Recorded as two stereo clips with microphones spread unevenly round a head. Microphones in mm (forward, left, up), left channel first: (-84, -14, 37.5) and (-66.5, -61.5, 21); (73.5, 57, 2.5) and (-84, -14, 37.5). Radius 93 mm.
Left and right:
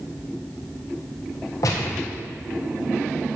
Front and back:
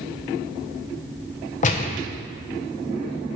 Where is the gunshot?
65° left, 1.2 m.